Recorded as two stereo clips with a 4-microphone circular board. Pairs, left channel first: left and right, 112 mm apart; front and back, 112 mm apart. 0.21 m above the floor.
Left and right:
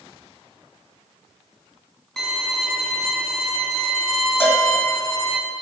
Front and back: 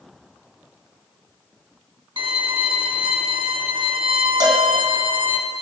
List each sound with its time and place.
2.2 s a violin: 175° left, 1.3 m
4.4 s a cowbell: 150° left, 1.5 m